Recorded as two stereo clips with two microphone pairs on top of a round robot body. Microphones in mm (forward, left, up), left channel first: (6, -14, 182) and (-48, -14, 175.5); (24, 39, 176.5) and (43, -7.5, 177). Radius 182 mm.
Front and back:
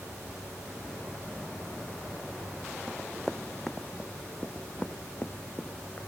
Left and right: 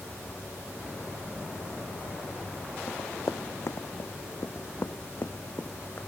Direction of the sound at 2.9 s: 90° left.